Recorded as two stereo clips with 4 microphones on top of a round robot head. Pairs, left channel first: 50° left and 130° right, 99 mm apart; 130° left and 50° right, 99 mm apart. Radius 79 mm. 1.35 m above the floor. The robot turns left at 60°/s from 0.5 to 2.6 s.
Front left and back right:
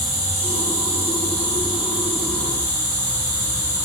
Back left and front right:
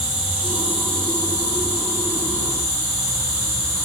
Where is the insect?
120° right, 2 m; by 3.9 s 115° left, 2 m.